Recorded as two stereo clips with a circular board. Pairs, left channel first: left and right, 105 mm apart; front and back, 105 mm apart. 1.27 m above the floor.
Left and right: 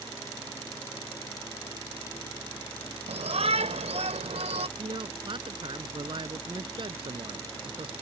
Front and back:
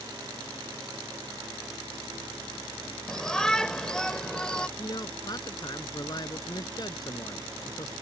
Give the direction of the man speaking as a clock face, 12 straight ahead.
2 o'clock.